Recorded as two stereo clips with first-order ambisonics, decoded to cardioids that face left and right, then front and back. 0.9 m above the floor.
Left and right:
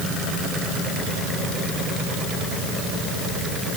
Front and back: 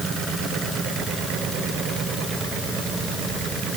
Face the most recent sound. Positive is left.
No sound to turn to.